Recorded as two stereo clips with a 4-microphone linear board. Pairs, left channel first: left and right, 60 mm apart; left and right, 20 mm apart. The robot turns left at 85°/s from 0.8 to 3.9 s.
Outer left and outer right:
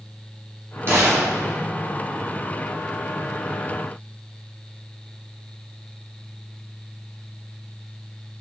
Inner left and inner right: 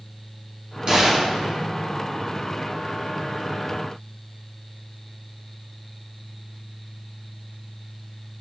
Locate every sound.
0.9 s a gunshot: 45° right, 2 m; by 1.6 s 105° right, 2 m